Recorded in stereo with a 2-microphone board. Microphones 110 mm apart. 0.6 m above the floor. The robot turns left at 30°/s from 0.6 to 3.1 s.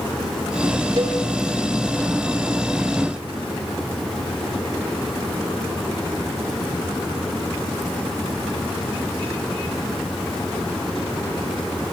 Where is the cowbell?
50° right (ahead or behind), 1.4 m.